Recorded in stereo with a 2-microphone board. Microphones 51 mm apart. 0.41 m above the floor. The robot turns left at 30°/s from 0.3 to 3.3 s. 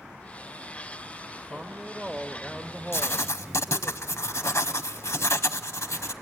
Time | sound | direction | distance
1.5 | a woman speaking | 140° right | 1.5 m
2.9 | writing | 55° left (ahead or behind) | 0.7 m